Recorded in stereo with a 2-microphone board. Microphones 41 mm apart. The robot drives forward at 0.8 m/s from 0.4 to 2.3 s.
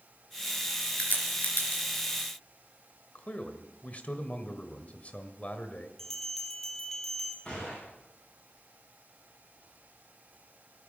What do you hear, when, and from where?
1.0 s a crack: 40° left (ahead or behind), 4.5 m; by 1.8 s 50° left (ahead or behind), 4 m
3.1 s a man speaking: 35° left (ahead or behind), 1.7 m
6.0 s a bell: 10° left (ahead or behind), 3.5 m
7.5 s a gunshot: 15° left (ahead or behind), 9.5 m